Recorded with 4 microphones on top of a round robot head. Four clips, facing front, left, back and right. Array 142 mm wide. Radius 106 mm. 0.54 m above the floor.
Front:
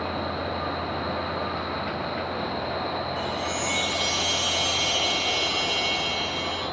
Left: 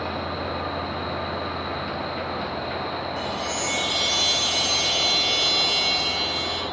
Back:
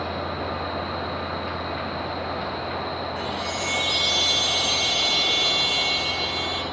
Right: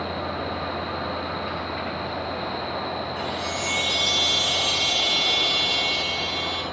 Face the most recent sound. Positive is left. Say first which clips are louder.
# even, even
turn(degrees=130)